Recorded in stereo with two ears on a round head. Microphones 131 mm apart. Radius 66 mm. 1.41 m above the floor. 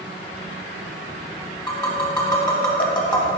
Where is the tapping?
25° left (ahead or behind), 1.0 m.